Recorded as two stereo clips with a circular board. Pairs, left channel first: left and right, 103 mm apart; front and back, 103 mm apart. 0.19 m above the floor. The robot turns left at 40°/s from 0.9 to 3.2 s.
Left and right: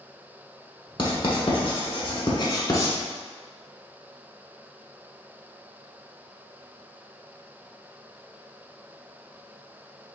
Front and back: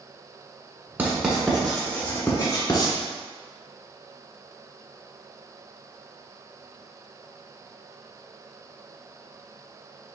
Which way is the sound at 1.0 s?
115° left.